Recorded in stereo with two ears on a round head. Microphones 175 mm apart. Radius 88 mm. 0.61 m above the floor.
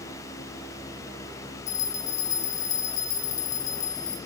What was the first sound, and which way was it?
A bell, 35° left (ahead or behind).